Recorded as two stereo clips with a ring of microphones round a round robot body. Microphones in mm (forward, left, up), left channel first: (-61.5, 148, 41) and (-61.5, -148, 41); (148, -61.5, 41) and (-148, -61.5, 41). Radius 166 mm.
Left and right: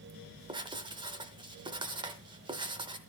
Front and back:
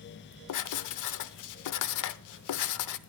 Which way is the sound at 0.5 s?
15° right.